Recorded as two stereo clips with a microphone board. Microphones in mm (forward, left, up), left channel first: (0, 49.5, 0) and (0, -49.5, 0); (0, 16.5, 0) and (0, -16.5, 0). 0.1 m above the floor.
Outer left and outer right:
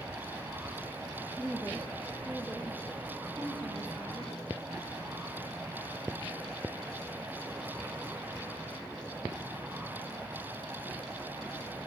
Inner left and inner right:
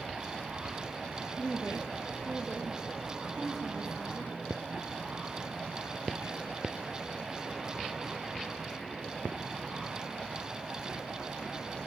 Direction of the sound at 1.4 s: 5° left (ahead or behind).